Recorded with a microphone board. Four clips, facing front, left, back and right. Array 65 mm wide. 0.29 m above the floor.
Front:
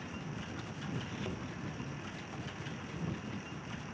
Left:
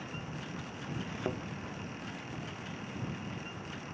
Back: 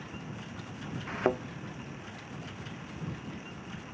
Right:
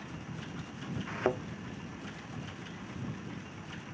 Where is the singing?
No singing in this recording.